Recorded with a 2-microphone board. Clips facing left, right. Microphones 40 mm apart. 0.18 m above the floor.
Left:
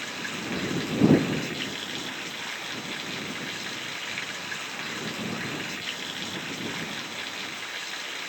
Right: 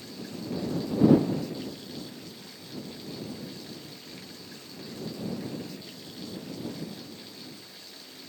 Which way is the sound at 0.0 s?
60° left (ahead or behind).